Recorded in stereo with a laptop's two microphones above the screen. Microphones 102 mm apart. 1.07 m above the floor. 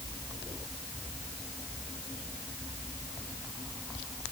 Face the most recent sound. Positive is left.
No sound to turn to.